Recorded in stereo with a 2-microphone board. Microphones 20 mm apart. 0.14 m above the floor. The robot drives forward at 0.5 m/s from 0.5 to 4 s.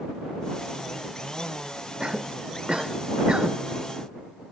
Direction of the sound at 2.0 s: 45° right (ahead or behind).